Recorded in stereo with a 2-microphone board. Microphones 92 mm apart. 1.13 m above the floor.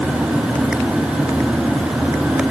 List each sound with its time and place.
Only background noise.